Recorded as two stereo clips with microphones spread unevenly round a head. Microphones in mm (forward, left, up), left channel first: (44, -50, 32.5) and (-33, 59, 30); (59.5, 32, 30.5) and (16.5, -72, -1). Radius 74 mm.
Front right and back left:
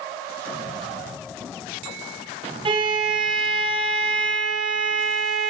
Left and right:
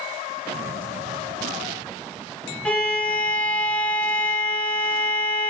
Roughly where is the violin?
Behind.